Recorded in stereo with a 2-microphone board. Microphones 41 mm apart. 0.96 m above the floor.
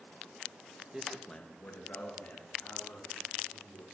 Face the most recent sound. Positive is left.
turn(degrees=75)  # may be behind; listen again after turning